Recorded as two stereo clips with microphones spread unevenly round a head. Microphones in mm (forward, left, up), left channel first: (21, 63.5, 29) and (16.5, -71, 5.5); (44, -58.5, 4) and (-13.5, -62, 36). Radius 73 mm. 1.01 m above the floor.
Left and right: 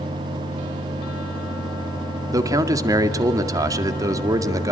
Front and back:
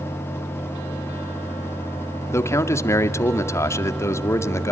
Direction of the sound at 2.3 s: 25° right.